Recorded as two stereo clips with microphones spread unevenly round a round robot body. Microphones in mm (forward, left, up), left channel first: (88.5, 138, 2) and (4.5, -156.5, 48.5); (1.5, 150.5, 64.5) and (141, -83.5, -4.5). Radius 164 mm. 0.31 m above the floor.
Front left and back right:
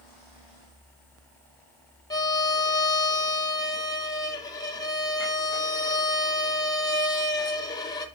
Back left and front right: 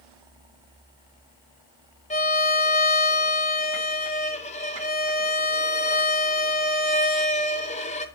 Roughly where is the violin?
Ahead left.